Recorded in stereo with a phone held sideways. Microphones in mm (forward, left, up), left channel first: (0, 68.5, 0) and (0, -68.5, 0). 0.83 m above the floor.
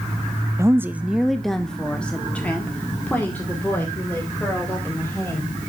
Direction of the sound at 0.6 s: 20° right (ahead or behind).